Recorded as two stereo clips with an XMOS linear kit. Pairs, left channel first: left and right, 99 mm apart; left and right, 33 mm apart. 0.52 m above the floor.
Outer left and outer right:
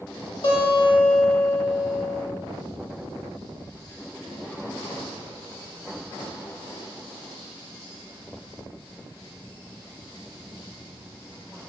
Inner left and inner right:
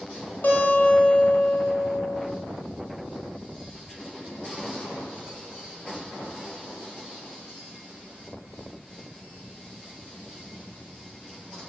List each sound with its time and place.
0.4 s a guitar: 75° left (ahead or behind), 0.6 m